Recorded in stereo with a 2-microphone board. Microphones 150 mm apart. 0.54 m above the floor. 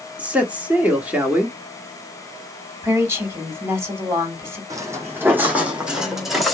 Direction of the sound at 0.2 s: 10° right (ahead or behind).